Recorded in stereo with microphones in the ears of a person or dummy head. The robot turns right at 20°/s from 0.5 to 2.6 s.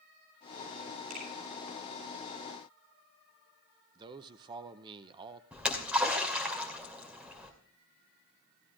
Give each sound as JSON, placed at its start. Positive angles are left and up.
{"t": 1.1, "sound": "a finger snap", "side_deg": -50, "distance_m": 6.5}
{"t": 4.0, "sound": "a man speaking", "side_deg": -25, "distance_m": 0.7}
{"t": 5.5, "sound": "a splash", "side_deg": -10, "distance_m": 2.5}